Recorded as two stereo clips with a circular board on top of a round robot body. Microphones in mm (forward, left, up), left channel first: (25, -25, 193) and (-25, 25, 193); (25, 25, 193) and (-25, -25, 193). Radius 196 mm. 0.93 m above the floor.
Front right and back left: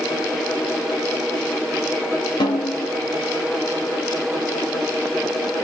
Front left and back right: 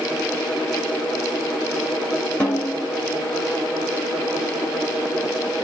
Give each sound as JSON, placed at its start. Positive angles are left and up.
{"t": 2.4, "sound": "a snare drum", "azimuth_deg": -30, "distance_m": 0.9}